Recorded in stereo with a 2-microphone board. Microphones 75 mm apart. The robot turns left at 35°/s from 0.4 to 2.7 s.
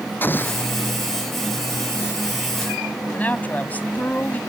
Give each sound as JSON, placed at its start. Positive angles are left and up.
{"t": 0.2, "sound": "an explosion", "side_deg": 25}
{"t": 3.1, "sound": "a man speaking", "side_deg": 20}